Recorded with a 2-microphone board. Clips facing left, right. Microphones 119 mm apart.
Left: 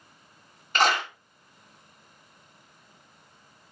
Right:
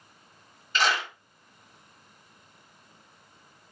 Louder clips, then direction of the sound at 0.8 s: Left 3 dB; 50° left (ahead or behind).